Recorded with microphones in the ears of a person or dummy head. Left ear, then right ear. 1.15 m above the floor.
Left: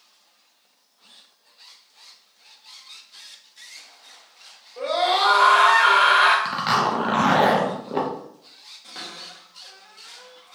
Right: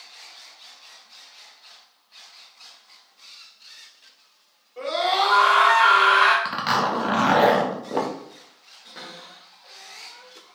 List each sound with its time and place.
4.8 s a scream: 5° right (ahead or behind), 1.9 m
6.5 s a zipper: 5° right (ahead or behind), 0.5 m
8.8 s a cupboard door: 20° left (ahead or behind), 1.0 m